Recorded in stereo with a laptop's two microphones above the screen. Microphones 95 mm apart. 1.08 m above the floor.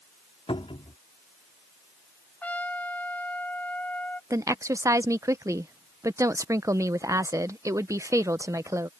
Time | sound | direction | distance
0.5 | a cupboard door | 85° left | ?
2.4 | a trumpet | 20° left (ahead or behind) | ?
4.3 | a woman speaking | 35° right (ahead or behind) | ?